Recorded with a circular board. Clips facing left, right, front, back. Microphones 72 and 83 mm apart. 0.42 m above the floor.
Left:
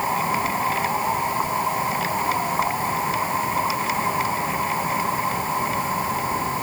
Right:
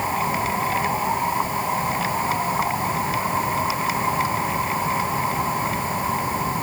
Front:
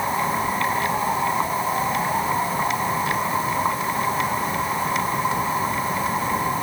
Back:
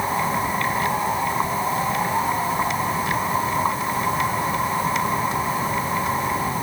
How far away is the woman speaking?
No woman speaking in this recording.